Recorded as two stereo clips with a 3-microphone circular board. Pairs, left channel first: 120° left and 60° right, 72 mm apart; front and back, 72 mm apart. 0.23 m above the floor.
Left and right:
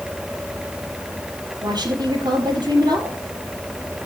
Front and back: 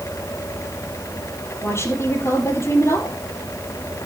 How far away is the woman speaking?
About 6.5 m.